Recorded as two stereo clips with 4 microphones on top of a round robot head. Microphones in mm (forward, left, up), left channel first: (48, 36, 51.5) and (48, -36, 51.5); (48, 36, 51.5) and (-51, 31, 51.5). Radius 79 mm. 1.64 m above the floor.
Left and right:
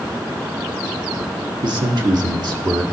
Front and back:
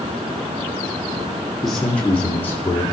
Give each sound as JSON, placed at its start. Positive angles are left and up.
{"t": 1.6, "sound": "a man speaking", "azimuth_deg": -85, "distance_m": 1.2}